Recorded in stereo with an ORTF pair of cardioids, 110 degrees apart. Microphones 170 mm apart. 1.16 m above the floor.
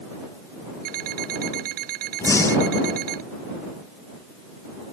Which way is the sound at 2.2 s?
15° left.